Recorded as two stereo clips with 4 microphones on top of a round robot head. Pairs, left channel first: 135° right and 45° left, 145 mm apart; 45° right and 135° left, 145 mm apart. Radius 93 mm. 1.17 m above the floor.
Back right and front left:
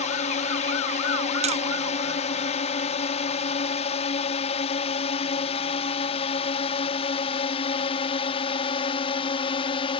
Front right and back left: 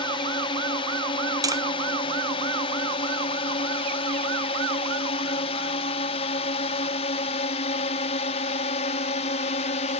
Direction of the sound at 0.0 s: 100° right.